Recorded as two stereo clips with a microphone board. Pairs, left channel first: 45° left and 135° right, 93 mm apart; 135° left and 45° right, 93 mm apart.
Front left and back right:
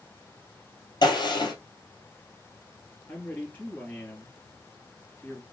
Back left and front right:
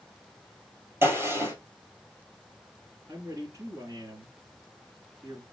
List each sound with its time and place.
1.0 s a gunshot: 15° left, 2 m
3.1 s a man speaking: 20° right, 2.5 m